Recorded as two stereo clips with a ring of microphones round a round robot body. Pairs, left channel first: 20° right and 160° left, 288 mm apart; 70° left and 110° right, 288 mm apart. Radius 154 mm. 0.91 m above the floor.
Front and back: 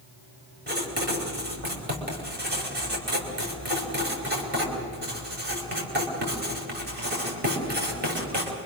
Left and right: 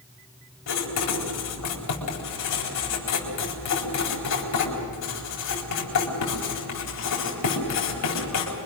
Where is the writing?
100° left, 4 m.